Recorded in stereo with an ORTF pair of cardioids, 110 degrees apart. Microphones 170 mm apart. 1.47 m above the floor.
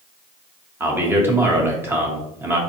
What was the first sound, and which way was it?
A man speaking, 15° right.